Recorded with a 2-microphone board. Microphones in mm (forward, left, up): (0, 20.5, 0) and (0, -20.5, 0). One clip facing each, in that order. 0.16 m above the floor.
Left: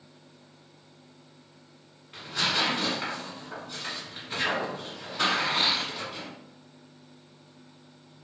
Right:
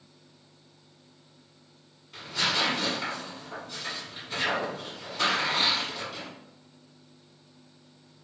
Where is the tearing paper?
25° left (ahead or behind), 1.6 m.